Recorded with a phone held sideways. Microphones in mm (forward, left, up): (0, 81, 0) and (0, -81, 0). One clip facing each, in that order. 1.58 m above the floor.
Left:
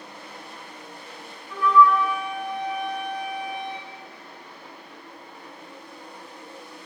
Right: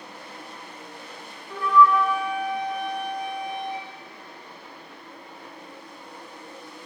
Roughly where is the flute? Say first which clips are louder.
Left 1 dB; right.